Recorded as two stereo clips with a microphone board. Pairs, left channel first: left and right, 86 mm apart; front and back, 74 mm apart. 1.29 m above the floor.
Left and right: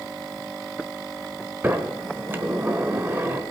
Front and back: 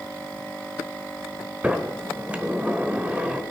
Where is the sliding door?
125° right, 1.1 m.